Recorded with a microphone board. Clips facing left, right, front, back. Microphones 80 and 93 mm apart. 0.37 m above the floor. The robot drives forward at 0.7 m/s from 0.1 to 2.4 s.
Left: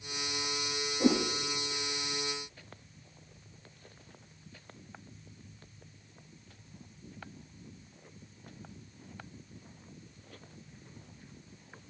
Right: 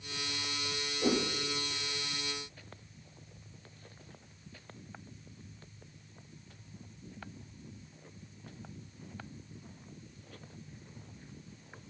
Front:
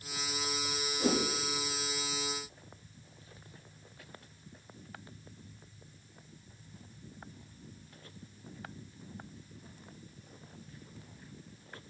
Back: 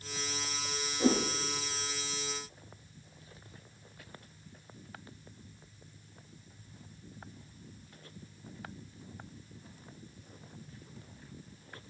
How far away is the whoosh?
About 7.5 m.